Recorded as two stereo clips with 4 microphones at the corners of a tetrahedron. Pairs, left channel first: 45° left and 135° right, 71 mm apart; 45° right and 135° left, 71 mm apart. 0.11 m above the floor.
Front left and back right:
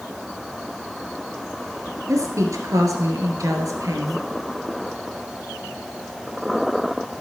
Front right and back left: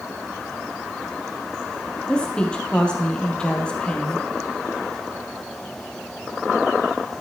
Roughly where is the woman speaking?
Behind right.